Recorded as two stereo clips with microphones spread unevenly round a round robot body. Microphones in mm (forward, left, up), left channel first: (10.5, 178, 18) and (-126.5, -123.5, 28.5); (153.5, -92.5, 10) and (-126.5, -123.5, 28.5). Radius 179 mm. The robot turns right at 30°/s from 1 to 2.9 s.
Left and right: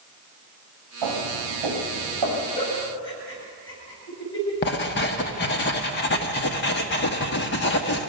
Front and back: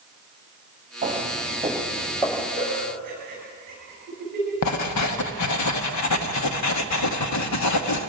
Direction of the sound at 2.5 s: 110° left.